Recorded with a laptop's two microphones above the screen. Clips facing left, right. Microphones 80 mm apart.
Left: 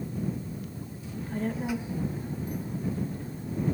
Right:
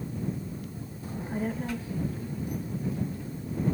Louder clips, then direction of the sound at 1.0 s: Even; 50° right (ahead or behind).